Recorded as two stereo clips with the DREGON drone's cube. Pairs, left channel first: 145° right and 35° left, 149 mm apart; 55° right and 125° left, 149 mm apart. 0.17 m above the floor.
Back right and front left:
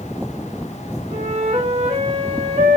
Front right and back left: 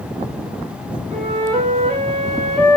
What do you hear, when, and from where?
1.1 s a flute: 85° left, 6.5 m